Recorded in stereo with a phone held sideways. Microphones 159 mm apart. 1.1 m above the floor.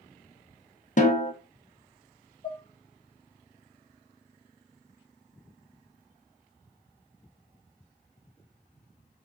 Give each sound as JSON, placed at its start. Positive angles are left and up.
{"t": 1.0, "sound": "a snare drum", "side_deg": 50, "distance_m": 0.5}
{"t": 2.4, "sound": "dishes clattering", "side_deg": 25, "distance_m": 0.7}